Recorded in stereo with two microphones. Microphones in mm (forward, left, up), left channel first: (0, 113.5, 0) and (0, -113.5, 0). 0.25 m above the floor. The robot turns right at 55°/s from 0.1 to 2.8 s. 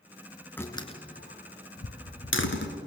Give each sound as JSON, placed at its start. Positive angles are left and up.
{"t": 0.6, "sound": "a door slam", "side_deg": 10, "distance_m": 2.0}